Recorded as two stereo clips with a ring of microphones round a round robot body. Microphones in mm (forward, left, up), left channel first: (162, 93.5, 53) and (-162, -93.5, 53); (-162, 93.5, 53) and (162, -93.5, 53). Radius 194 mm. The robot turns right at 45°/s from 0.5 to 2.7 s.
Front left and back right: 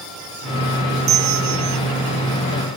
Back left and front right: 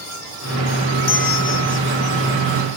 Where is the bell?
165° right, 1.7 m; by 1.8 s 135° right, 1.7 m.